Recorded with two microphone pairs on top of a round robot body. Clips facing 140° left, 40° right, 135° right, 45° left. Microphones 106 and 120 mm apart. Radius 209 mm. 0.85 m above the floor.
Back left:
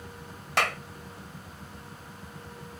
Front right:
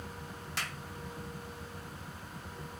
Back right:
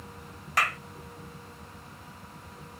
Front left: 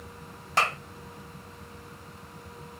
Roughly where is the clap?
Left.